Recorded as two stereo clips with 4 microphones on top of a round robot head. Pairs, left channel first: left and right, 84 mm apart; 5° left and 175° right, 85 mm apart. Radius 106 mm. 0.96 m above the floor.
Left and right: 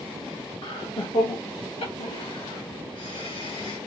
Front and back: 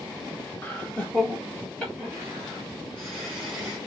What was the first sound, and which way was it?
Laughter, 75° left.